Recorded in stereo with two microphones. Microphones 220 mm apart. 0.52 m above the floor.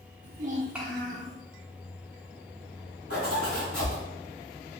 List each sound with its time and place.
0.2 s a child speaking: 55° right (ahead or behind), 1.0 m; by 1.3 s 40° left (ahead or behind), 1.1 m
3.1 s a zipper: 80° left, 1.3 m